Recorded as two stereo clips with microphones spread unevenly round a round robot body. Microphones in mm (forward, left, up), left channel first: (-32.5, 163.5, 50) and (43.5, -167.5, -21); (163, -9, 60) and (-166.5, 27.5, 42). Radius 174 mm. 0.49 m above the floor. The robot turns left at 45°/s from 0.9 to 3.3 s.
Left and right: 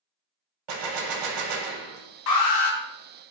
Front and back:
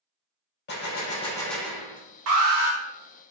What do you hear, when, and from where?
0.7 s a gunshot: 65° right, 0.8 m; by 2.0 s 115° right, 0.8 m
2.3 s an alarm: 145° left, 1.0 m; by 2.8 s 120° left, 1.0 m